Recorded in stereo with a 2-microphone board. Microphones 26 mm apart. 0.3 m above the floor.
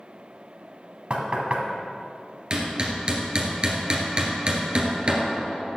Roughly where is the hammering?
Right.